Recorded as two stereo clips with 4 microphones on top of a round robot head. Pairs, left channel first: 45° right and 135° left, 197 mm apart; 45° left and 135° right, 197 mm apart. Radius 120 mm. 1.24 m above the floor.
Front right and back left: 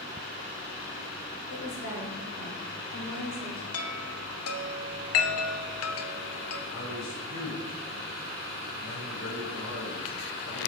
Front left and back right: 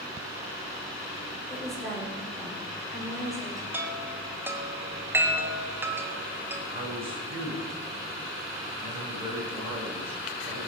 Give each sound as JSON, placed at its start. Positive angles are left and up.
{"t": 1.5, "sound": "a woman speaking", "azimuth_deg": -45, "distance_m": 6.0}
{"t": 3.7, "sound": "a chime", "azimuth_deg": -55, "distance_m": 1.3}
{"t": 6.7, "sound": "a man speaking", "azimuth_deg": -70, "distance_m": 6.0}